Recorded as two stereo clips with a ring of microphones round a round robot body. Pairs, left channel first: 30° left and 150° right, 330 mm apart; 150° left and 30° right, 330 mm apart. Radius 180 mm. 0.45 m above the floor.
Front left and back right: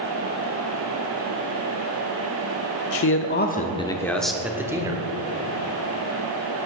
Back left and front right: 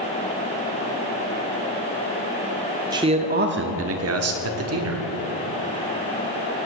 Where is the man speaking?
45° left, 0.9 m; by 5.1 s 75° right, 1.6 m.